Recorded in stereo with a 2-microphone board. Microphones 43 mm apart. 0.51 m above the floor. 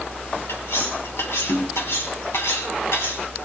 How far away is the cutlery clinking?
About 2.5 m.